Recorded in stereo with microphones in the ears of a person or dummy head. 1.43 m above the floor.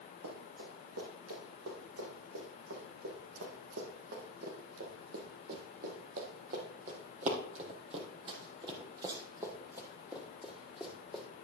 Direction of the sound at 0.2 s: 75° right (ahead or behind).